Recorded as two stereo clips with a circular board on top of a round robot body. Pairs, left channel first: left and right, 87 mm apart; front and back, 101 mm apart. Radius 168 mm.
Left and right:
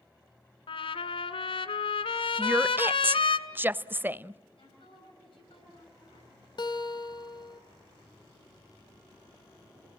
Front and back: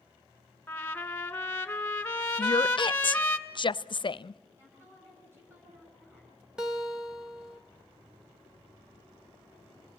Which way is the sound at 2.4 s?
25° right.